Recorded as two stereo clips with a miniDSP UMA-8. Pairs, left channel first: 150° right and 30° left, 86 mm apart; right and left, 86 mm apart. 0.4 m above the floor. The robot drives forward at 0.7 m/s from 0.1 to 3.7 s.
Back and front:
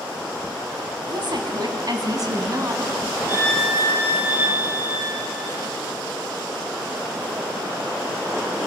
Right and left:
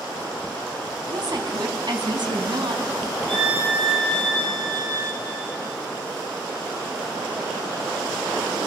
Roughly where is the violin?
Left.